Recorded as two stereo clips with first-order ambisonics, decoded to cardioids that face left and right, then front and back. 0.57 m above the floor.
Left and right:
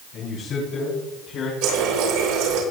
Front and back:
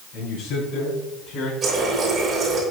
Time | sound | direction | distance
0.1 | a man speaking | 40° left | 6 m
1.6 | a running tap | 110° right | 6 m